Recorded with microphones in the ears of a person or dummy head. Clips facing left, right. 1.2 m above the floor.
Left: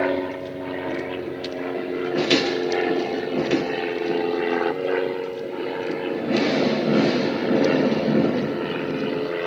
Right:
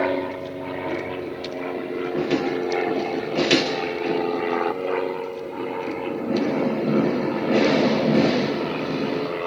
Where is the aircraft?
10° left (ahead or behind); by 9.5 s 15° left (ahead or behind).